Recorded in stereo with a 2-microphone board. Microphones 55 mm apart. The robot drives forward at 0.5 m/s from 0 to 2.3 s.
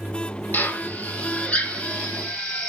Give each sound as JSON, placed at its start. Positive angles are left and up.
{"t": 0.5, "sound": "a drill", "side_deg": 30, "distance_m": 0.9}